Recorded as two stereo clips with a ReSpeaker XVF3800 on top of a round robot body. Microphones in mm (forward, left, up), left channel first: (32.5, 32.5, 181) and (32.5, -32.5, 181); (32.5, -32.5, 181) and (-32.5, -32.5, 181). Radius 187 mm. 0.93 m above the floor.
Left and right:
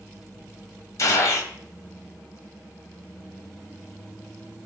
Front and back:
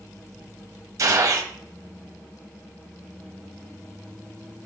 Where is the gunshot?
135° left, 1.4 m.